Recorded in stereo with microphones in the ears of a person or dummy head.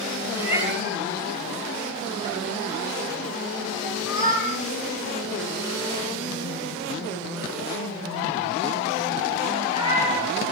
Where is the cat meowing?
15° right (ahead or behind), 8 m; by 10.3 s 20° right (ahead or behind), 16.5 m.